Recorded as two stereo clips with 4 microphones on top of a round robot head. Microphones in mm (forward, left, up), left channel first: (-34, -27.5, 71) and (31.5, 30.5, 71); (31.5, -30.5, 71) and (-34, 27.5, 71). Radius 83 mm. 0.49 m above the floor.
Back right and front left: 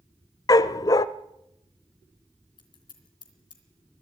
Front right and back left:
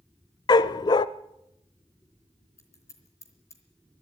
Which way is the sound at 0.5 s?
85° right.